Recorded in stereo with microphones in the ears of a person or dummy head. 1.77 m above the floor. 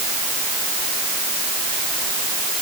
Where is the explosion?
No explosion in this recording.